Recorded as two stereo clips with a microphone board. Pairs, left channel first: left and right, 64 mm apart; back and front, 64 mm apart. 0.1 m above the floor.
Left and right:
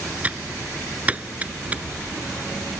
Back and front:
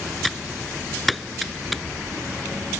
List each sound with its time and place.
0.2 s typing on a keyboard: 90° right